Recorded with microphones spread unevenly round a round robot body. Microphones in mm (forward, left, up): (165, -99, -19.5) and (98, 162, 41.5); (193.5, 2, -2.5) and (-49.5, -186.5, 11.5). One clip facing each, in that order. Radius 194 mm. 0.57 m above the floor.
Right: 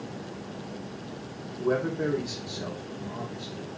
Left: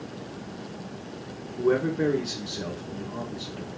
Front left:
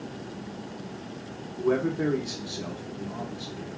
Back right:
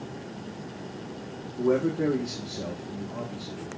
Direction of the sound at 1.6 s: 150° left.